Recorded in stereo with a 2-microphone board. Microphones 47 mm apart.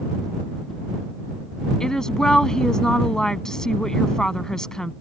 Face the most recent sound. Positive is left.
turn(degrees=15)  # may be behind; listen again after turning